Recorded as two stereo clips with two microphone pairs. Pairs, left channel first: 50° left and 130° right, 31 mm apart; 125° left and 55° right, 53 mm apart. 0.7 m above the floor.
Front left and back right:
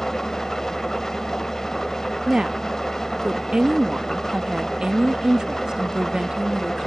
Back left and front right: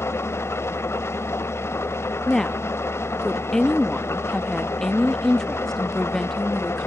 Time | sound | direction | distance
0.0 | an engine running | 120° left | 0.7 m
2.3 | a woman speaking | 160° right | 0.9 m